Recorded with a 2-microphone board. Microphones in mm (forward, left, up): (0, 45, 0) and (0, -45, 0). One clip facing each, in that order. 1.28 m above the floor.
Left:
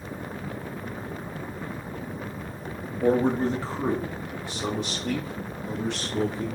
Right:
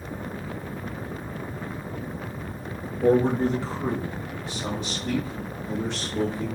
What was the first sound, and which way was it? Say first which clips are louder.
A man speaking: right 2 dB; 25° left (ahead or behind).